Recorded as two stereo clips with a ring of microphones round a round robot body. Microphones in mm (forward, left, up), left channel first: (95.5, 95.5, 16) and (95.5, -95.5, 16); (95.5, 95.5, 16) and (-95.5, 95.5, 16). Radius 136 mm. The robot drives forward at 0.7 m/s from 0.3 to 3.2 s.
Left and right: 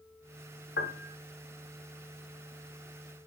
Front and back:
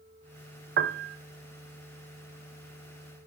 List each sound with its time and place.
0.8 s a piano: 145° left, 0.5 m; by 1.2 s 155° left, 0.8 m